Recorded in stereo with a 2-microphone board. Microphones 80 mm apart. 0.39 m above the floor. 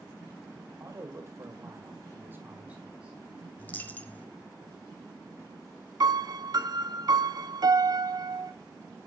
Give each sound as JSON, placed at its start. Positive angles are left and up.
{"t": 0.8, "sound": "a man speaking", "side_deg": -35, "distance_m": 2.0}
{"t": 3.6, "sound": "a dropped coin", "side_deg": 20, "distance_m": 0.9}
{"t": 6.0, "sound": "a piano", "side_deg": -50, "distance_m": 0.6}